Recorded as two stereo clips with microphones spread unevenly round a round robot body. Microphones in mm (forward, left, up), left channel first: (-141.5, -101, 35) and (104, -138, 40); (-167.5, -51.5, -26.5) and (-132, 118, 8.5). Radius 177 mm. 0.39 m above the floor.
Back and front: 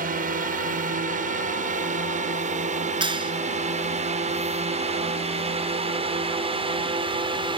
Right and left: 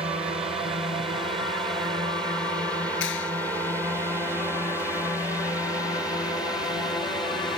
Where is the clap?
80° right.